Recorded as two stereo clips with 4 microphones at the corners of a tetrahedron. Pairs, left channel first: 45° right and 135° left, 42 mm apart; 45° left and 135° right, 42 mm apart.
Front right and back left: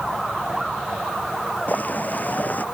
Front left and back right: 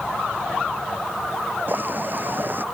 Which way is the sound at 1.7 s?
95° right.